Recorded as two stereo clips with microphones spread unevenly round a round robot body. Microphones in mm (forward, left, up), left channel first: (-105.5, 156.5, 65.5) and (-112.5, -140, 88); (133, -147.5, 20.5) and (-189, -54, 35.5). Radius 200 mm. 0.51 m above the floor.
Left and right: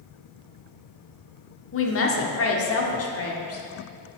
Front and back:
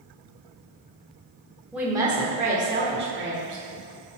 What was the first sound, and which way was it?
A woman speaking, 75° left.